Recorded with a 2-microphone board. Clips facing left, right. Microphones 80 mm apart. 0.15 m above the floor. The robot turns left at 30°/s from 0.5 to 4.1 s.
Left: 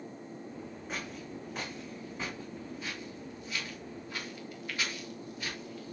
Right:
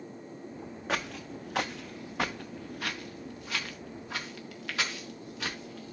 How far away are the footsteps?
About 0.7 m.